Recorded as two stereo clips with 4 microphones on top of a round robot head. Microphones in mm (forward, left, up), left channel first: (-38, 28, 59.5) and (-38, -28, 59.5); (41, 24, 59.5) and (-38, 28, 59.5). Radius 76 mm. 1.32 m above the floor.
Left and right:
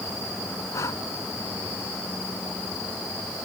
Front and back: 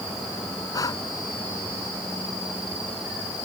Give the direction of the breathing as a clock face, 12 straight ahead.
11 o'clock.